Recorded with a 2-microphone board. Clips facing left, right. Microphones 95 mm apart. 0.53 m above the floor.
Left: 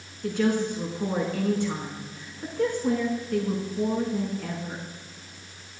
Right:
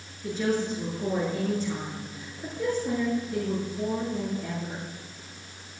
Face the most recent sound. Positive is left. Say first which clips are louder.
# left 3 dB
turn(degrees=70)  # may be behind; listen again after turning